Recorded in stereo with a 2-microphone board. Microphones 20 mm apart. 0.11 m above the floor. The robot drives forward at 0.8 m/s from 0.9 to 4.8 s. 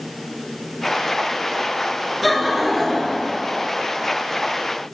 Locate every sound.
2.2 s laughter: 5° right (ahead or behind), 1.5 m